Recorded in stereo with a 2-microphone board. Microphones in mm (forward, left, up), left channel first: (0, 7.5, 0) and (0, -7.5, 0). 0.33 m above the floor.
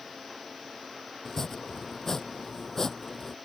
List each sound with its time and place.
1.2 s chopping: 20° left (ahead or behind)